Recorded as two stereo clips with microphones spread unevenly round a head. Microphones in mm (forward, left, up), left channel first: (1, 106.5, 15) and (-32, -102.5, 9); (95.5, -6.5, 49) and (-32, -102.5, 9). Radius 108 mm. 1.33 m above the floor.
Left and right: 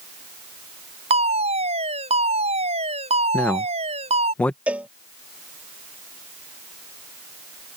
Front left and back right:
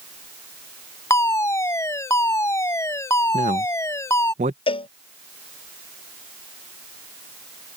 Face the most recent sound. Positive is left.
turn(degrees=-15)